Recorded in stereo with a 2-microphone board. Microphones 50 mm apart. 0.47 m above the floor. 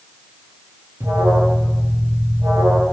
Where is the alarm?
80° right, 9 m.